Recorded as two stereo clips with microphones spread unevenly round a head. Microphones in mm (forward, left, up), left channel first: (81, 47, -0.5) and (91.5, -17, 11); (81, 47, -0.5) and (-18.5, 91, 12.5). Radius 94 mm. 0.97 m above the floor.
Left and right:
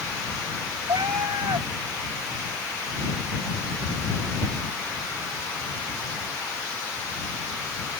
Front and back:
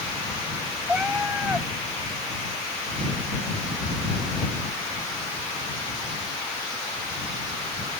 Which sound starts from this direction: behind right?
A cat meowing, at 0.9 s.